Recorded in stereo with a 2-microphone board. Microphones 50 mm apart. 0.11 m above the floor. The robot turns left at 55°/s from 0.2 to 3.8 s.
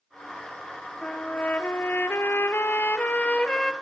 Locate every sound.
1.0 s a trumpet: 160° left, 1.4 m; by 3.7 s 10° left, 1.4 m